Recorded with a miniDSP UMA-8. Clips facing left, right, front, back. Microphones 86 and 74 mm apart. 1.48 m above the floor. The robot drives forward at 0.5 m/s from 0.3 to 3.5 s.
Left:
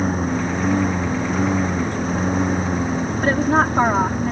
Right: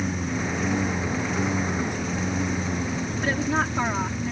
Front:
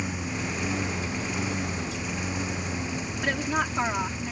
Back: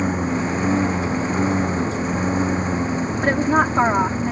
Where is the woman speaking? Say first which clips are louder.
Left 8 dB, back 9 dB; 130° left.